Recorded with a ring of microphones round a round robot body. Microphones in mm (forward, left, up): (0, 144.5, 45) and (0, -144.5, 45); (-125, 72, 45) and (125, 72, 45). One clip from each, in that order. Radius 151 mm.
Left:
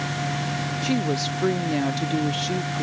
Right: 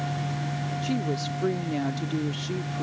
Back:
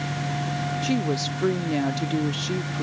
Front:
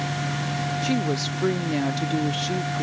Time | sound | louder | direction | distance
0.8 | a woman speaking | left 5 dB, even | 70° left | ?